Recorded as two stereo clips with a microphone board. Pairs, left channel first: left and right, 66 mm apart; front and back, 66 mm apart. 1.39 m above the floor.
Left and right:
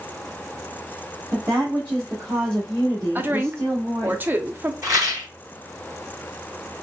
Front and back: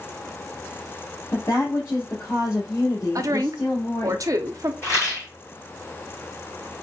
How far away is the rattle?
About 2.5 m.